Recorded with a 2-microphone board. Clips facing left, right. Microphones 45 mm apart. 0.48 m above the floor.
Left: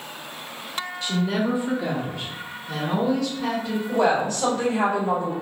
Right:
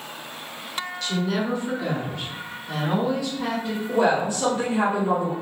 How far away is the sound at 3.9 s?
About 1.1 m.